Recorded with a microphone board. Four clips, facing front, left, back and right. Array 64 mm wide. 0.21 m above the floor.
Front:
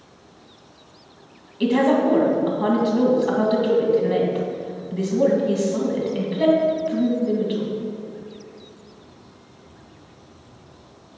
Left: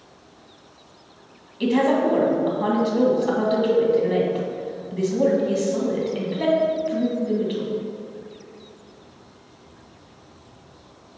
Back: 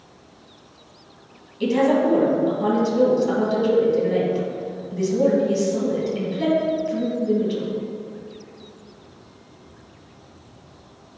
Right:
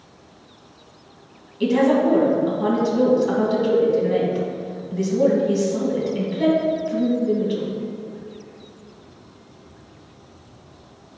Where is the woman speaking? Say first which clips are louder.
Right 2 dB, front 1 dB; 25° left, 1.8 m.